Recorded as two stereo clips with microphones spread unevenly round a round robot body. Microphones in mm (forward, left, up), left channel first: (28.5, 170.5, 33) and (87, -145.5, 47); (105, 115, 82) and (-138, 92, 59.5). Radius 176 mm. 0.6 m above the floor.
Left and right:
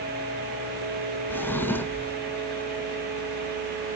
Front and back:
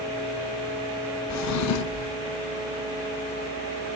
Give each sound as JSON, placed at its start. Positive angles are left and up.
{"t": 1.3, "sound": "a drawer", "azimuth_deg": 15, "distance_m": 0.7}